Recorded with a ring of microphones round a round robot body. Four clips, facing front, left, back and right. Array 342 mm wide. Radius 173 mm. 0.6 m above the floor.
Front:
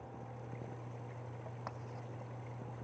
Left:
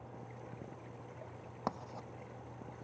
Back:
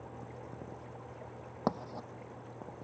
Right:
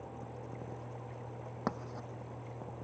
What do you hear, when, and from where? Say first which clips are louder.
1.7 s writing: right 2 dB, back 15 dB; 160° right